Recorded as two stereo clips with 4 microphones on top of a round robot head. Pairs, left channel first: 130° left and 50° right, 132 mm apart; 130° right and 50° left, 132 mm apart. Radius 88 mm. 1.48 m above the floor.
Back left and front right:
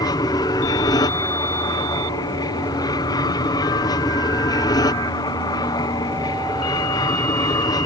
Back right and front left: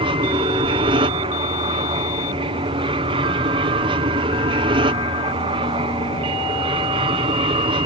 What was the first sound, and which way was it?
An aircraft, 80° left.